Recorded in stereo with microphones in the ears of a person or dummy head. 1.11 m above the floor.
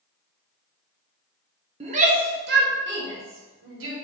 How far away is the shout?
About 0.8 m.